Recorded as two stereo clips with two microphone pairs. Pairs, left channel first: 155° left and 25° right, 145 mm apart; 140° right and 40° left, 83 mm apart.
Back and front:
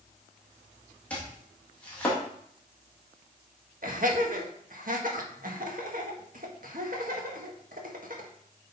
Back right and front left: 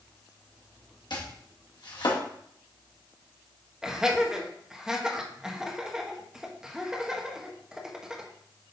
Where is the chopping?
125° right, 2 m.